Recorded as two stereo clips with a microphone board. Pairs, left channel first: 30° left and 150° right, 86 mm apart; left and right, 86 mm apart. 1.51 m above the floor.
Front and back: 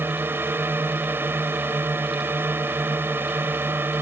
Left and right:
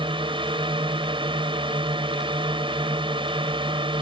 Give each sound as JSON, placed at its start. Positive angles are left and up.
{"t": 0.0, "sound": "a drone", "azimuth_deg": -85}